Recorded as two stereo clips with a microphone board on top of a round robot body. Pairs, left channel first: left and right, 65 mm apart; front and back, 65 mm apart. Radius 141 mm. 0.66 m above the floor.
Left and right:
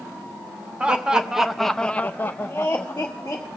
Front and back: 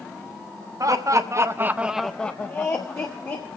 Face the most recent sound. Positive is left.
turn(degrees=35)